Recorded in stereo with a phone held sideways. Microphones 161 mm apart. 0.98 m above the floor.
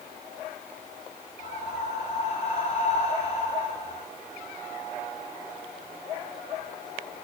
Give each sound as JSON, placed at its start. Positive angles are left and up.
{"t": 1.4, "sound": "breathing", "side_deg": 50, "distance_m": 5.0}